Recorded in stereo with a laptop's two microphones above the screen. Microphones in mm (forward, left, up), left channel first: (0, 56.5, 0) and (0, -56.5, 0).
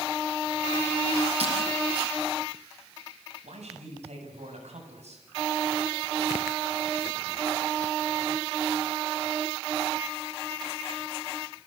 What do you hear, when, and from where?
1.4 s breaking glass: 70° right (ahead or behind), 8.5 m
3.4 s a man speaking: 80° right, 8.5 m